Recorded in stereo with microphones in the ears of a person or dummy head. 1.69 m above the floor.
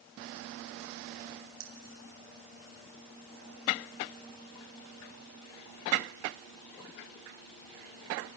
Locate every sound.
1.6 s keys jangling: 65° right (ahead or behind), 3.5 m